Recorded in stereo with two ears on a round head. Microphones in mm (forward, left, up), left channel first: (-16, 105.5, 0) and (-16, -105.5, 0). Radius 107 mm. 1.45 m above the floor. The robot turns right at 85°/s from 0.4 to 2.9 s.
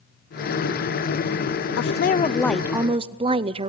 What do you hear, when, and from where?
1.8 s a woman speaking: 110° left, 0.5 m; by 3.7 s 150° right, 0.5 m